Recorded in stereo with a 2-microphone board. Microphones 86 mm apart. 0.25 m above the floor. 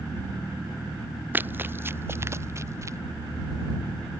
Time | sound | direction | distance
1.3 | running footsteps | 20° right (ahead or behind) | ?